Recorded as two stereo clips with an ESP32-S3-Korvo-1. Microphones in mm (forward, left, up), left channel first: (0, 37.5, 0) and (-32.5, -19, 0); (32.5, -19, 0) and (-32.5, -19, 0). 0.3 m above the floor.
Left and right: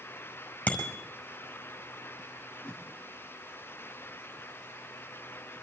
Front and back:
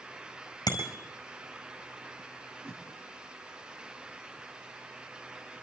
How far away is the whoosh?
About 4.5 m.